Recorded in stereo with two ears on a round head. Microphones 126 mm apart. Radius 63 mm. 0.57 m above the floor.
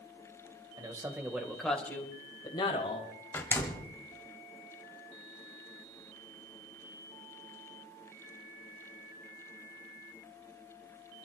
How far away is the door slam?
About 1.7 m.